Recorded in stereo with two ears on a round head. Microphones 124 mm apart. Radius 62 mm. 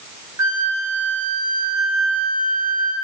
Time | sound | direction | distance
0.4 | a flute | 25° right (ahead or behind) | 0.6 m